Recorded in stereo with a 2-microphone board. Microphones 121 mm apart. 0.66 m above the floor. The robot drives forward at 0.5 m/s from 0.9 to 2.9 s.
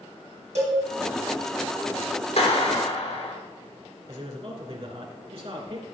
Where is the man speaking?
60° right (ahead or behind), 2.5 m.